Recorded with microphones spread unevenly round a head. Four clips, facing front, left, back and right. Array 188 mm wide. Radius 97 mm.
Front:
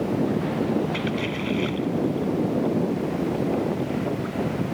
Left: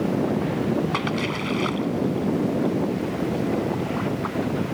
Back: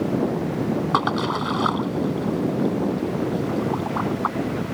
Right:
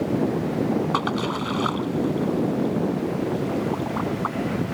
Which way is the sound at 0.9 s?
170° right.